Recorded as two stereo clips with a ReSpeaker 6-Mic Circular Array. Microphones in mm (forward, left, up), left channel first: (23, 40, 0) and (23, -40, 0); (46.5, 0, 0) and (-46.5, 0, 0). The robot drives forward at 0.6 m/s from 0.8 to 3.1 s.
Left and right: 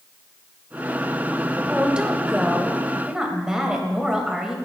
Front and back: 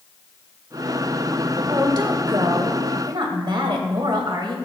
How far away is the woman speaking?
About 1.4 m.